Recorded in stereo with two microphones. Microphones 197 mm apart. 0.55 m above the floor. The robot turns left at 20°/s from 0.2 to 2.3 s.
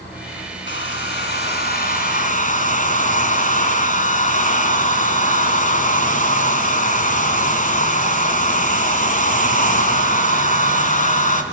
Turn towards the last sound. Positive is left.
turn(degrees=45)